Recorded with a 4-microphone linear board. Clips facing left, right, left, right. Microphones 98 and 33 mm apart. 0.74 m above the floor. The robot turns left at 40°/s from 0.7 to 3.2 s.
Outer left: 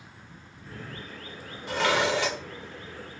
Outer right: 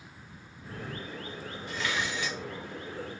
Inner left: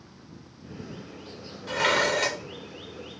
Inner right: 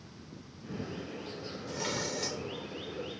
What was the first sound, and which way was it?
A vehicle, 20° left (ahead or behind).